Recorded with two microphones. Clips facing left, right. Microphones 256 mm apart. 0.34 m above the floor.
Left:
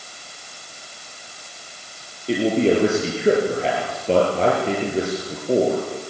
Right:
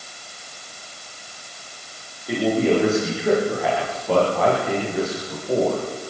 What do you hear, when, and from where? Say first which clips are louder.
2.3 s a man speaking: left 1 dB; 30° left (ahead or behind), 8.5 m